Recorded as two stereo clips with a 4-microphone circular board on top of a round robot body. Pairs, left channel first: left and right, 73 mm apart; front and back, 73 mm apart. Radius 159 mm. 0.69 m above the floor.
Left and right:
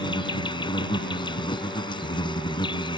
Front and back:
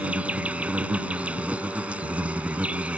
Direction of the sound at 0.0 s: 105° left.